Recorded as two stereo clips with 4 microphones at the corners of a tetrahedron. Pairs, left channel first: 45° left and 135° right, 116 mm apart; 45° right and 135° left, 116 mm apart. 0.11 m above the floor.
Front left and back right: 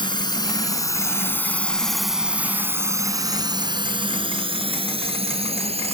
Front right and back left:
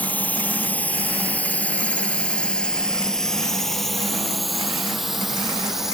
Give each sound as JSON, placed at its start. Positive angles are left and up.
{"t": 0.0, "sound": "a drone", "azimuth_deg": 25}